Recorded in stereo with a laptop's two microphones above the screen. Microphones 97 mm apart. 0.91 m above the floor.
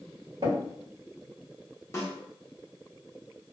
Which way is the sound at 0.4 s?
60° right (ahead or behind).